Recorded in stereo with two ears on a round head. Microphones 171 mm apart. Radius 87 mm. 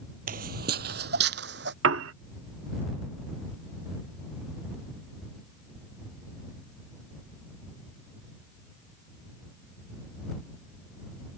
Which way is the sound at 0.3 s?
50° right (ahead or behind).